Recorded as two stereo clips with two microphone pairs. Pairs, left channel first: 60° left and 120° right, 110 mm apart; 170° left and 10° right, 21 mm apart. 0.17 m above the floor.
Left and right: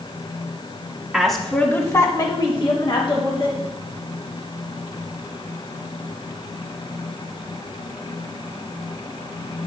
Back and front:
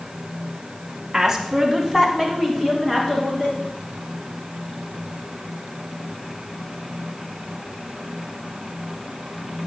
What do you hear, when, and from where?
1.1 s a woman speaking: 45° right, 1.2 m; by 3.6 s 90° left, 2.5 m